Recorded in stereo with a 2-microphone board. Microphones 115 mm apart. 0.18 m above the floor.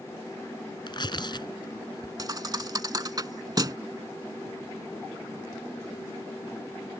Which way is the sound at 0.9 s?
45° left (ahead or behind).